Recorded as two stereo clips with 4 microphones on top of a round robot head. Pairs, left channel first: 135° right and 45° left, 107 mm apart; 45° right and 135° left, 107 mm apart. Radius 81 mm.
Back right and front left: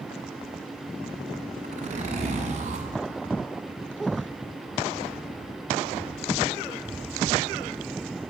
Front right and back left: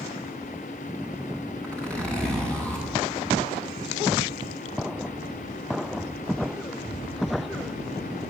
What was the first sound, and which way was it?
A zipper, 35° left.